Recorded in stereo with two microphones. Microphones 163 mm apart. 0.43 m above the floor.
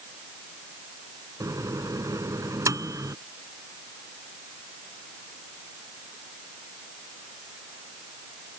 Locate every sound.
1.4 s a microwave: 20° right (ahead or behind)